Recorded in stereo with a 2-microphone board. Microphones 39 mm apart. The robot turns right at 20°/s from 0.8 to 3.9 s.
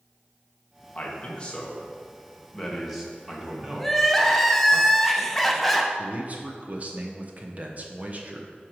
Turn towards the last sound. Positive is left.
turn(degrees=-40)  # may be behind; listen again after turning